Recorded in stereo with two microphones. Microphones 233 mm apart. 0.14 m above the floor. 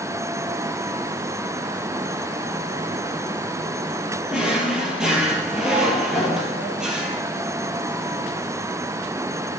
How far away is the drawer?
About 1.5 m.